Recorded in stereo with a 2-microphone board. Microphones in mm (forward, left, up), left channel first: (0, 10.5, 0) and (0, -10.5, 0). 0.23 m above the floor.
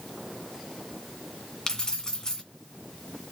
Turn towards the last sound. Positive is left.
turn(degrees=35)  # may be behind; listen again after turning